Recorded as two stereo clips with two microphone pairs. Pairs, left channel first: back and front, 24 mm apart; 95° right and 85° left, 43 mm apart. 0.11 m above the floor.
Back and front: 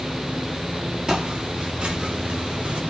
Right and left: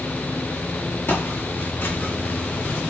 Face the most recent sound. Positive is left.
turn(degrees=-40)